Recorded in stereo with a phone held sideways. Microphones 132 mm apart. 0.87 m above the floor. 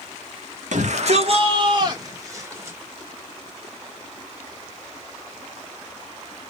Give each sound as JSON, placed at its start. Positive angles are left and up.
{"t": 0.7, "sound": "a shout", "side_deg": -70, "distance_m": 1.3}